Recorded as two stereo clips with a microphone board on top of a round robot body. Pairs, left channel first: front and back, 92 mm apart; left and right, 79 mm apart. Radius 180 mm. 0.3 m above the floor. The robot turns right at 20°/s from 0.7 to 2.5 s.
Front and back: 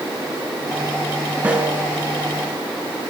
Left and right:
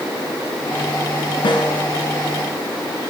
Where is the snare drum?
100° left, 2 m; by 1.9 s 110° left, 2 m.